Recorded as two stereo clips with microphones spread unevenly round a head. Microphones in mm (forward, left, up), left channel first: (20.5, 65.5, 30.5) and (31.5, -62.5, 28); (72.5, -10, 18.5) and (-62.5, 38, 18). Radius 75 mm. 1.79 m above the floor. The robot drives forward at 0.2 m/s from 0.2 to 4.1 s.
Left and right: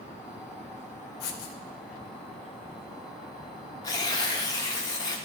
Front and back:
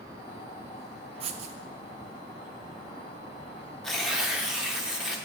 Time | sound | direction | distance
1.2 | writing | 110° left | 0.5 m
3.8 | tearing paper | 65° left | 0.6 m